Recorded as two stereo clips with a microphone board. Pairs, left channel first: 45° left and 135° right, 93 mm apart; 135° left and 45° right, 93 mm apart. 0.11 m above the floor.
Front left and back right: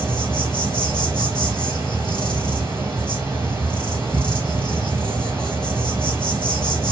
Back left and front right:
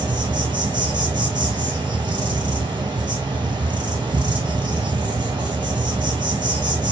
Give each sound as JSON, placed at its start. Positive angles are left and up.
{"t": 0.0, "sound": "an insect", "azimuth_deg": -70, "distance_m": 0.9}